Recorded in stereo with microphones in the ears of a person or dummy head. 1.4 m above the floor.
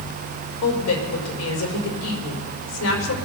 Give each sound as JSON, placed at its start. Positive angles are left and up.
{"t": 0.6, "sound": "a woman speaking", "side_deg": 80, "distance_m": 4.5}